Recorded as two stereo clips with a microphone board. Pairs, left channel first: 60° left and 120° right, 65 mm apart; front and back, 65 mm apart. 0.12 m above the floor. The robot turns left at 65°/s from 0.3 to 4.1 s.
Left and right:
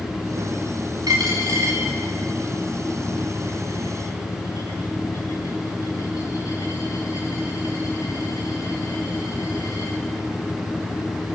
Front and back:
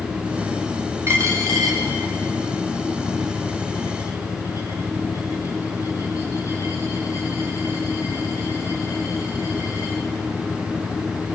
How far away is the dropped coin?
About 6.5 m.